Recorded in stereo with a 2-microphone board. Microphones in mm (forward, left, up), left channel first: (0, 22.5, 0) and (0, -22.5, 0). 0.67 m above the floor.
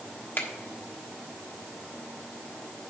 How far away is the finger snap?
About 1.3 m.